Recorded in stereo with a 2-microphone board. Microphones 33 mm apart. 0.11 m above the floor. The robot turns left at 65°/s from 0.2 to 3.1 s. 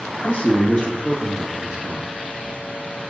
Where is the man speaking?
75° left, 2 m; by 2.1 s 50° right, 2 m.